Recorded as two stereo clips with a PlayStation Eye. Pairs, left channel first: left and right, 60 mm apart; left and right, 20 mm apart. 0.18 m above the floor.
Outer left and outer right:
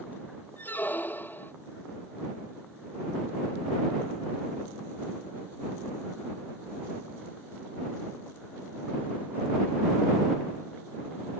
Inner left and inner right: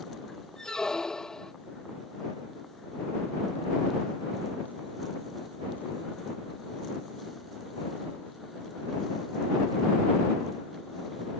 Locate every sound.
0.6 s a squeak: 35° left (ahead or behind)